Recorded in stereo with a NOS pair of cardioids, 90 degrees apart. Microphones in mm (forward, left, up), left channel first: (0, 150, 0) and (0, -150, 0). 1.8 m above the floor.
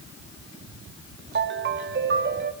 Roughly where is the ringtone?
Ahead right.